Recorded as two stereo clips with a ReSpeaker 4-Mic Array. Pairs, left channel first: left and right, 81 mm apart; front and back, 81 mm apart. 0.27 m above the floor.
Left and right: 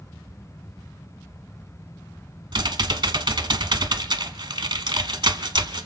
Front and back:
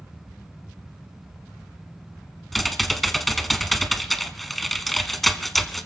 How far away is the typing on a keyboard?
About 0.9 m.